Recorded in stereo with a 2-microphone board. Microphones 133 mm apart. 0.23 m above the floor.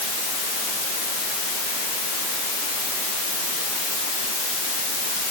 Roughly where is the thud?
No thud in this recording.